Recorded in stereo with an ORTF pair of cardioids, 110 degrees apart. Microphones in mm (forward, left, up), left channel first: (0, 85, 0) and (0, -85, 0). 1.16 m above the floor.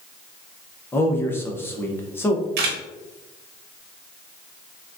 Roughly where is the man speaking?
Ahead.